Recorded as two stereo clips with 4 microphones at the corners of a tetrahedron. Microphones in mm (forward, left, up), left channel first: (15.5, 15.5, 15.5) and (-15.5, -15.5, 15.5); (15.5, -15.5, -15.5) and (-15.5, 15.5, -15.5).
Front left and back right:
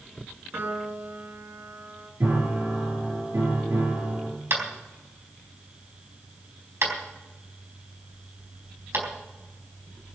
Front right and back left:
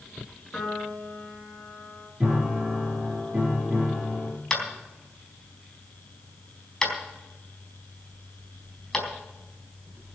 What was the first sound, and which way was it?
A piano, 120° right.